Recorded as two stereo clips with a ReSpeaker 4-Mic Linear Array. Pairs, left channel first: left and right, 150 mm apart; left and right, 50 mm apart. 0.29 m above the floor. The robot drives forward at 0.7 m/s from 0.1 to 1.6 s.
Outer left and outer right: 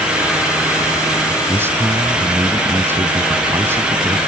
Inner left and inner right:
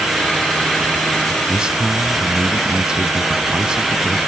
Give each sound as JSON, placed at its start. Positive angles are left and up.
{"t": 1.5, "sound": "a man speaking", "side_deg": -15}